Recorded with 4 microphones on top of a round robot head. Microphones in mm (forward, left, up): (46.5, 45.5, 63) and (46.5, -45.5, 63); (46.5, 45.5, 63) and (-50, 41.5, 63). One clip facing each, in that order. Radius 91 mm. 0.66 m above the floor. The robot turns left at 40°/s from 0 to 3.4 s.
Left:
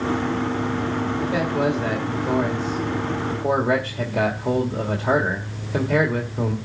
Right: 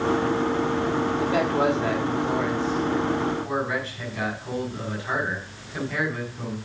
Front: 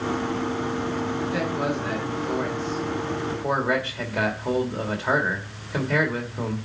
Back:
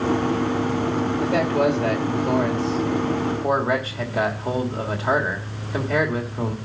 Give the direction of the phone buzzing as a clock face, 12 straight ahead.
No phone buzzing in this recording.